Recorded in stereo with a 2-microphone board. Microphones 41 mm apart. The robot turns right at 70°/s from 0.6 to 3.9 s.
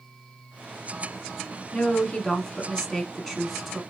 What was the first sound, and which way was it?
A woman speaking, 20° left (ahead or behind).